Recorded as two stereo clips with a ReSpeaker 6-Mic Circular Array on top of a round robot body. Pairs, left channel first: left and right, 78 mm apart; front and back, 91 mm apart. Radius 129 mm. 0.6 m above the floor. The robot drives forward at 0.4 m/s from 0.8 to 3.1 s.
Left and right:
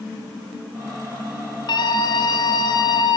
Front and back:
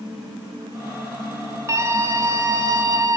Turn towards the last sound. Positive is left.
turn(degrees=125)